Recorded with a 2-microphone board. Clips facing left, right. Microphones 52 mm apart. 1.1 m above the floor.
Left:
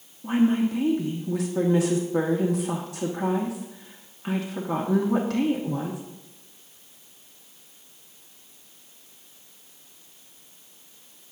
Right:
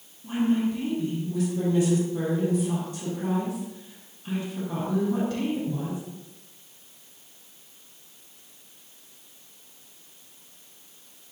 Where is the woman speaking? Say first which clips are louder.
Left 3 dB; 80° left, 1.9 m.